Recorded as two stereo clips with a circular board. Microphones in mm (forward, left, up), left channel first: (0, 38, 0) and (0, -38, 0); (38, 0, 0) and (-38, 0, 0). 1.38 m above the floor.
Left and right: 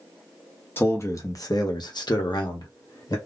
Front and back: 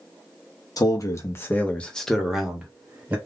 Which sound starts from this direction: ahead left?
A man speaking, at 0.8 s.